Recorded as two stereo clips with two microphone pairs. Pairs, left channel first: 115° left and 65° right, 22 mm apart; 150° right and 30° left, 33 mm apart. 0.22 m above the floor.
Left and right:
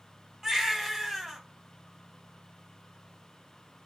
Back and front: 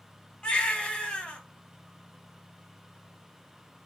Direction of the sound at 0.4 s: 125° right.